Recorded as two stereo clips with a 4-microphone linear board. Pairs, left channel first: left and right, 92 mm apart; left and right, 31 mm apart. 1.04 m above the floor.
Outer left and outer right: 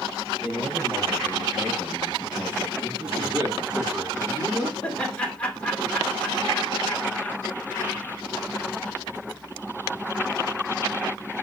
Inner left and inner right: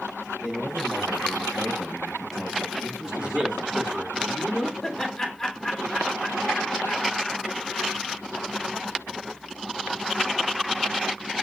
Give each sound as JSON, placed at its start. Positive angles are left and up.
{"t": 0.4, "sound": "a man speaking", "side_deg": -20, "distance_m": 6.0}
{"t": 3.0, "sound": "a man speaking", "side_deg": -25, "distance_m": 3.5}
{"t": 4.8, "sound": "laughter", "side_deg": 15, "distance_m": 3.0}